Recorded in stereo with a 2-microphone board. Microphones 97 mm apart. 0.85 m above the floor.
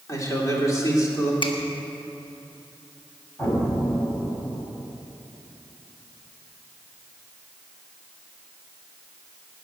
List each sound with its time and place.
0.1 s a man speaking: 35° left (ahead or behind), 3 m
1.4 s a finger snap: 60° left (ahead or behind), 1.2 m
3.4 s an explosion: 20° left (ahead or behind), 2.5 m